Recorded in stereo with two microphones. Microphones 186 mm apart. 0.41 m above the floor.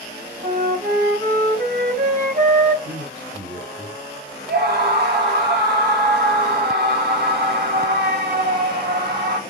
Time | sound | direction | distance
0.4 | a flute | 55° right (ahead or behind) | 2.5 m
2.9 | a man speaking | 55° right (ahead or behind) | 2.5 m
4.5 | a scream | 60° right (ahead or behind) | 1.7 m